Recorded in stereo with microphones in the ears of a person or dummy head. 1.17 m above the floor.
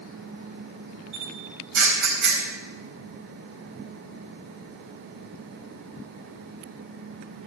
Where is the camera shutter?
65° right (ahead or behind), 4 m.